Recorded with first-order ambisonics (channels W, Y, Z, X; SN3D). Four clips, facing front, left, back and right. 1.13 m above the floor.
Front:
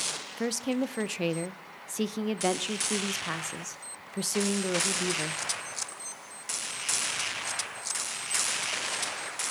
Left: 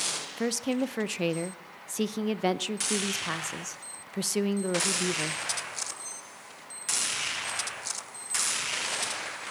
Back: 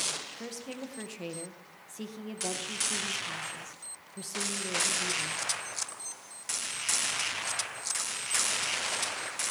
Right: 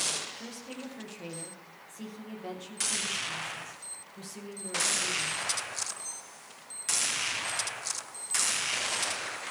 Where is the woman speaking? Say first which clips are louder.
Left 13 dB, front 11 dB; 55° left, 0.6 m.